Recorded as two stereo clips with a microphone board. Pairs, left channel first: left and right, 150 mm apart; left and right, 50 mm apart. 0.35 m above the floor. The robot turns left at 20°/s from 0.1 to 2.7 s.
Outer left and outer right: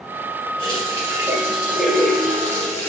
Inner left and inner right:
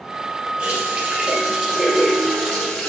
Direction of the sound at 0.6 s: 155° right.